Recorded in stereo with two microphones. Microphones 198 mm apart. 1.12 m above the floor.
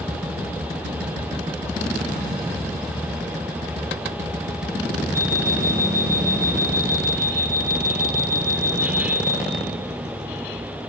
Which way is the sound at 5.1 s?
15° right (ahead or behind).